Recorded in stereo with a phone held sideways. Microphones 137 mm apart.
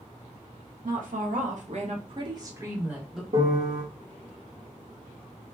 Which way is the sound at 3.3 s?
55° right (ahead or behind).